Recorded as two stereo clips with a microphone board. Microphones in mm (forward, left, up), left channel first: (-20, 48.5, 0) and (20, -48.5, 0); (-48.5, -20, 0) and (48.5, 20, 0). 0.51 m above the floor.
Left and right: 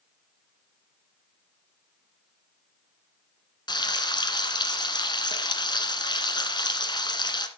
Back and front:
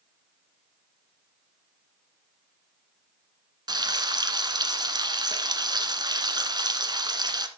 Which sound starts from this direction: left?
Frying, at 3.7 s.